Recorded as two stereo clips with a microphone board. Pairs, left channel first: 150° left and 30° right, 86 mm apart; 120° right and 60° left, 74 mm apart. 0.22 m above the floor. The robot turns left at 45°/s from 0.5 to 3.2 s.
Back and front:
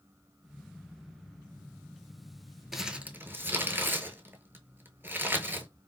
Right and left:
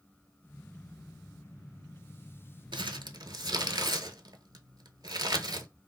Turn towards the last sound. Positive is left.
turn(degrees=35)